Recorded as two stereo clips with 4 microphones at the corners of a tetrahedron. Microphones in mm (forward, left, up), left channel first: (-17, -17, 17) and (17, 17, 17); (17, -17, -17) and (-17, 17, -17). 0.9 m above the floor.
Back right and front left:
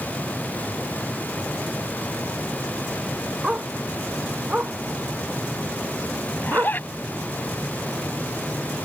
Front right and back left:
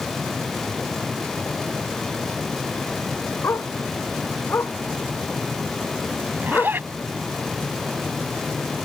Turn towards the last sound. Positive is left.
turn(degrees=180)